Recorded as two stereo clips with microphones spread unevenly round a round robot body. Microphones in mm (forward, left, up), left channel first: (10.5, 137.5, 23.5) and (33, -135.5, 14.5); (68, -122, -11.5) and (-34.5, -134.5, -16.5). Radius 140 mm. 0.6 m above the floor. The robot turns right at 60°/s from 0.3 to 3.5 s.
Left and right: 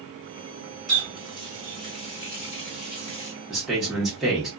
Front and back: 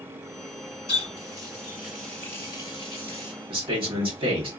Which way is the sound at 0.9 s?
5° left.